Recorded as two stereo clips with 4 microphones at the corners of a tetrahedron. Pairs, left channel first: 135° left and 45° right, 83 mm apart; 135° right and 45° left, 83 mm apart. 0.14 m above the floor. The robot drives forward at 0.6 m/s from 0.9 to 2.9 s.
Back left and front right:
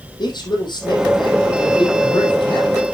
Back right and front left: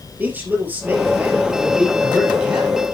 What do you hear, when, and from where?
0.2 s a man speaking: 115° left, 4.5 m; by 2.8 s 125° left, 5 m